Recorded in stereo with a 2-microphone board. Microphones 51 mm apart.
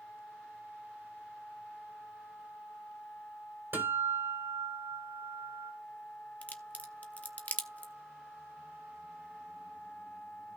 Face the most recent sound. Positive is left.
turn(degrees=30)  # may be behind; listen again after turning